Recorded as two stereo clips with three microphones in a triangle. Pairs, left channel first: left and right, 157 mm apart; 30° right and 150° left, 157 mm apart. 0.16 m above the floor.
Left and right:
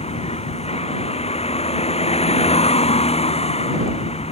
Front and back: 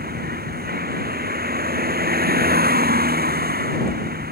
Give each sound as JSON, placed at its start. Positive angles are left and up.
{"t": 0.0, "sound": "a vehicle", "azimuth_deg": 140}